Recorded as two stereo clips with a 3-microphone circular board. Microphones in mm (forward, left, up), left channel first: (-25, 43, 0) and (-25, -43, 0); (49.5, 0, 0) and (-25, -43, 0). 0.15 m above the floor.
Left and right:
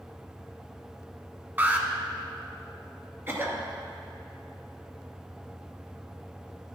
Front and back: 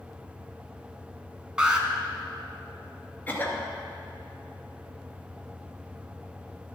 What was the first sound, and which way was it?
An alarm, 90° right.